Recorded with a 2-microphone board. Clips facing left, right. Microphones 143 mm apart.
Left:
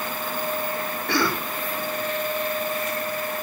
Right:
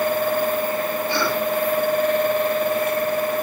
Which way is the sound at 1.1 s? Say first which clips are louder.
Left 1 dB; 75° left (ahead or behind).